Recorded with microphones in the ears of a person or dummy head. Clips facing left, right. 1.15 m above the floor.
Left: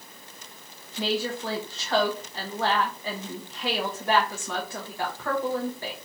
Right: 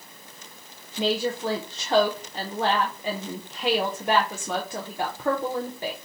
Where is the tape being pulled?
I don't hear tape being pulled.